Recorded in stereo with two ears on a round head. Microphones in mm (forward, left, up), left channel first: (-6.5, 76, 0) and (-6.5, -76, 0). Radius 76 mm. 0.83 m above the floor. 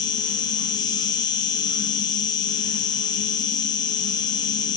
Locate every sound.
0.0 s an insect: 25° left (ahead or behind), 2 m